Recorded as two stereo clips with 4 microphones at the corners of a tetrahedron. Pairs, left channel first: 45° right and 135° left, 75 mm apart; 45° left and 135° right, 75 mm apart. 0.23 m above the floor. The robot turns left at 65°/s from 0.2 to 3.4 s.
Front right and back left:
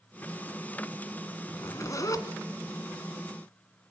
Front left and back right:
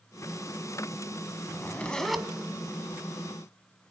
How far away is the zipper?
About 1.5 m.